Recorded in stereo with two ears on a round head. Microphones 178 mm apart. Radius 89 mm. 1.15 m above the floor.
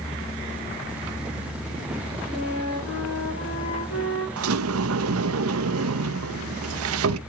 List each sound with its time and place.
2.3 s a flute: 70° left (ahead or behind), 4.5 m
4.4 s a sliding door: 80° right, 0.7 m